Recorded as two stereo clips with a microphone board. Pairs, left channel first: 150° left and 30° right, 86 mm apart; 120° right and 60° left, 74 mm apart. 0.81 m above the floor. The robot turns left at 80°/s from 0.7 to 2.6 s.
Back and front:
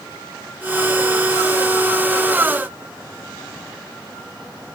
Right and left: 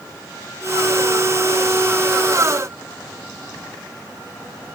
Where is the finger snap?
I don't hear a finger snap.